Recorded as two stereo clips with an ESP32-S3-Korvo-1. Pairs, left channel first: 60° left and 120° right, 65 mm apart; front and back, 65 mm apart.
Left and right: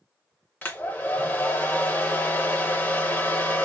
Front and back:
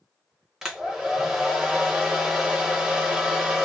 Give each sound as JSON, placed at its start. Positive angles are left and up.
{"t": 0.6, "sound": "a hair dryer", "azimuth_deg": 105, "distance_m": 0.7}